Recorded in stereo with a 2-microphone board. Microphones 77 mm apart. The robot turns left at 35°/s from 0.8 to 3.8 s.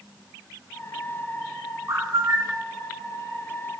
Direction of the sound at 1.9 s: 45° right (ahead or behind).